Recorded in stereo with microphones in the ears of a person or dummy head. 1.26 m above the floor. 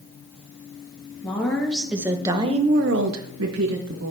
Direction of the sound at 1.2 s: 5° left (ahead or behind).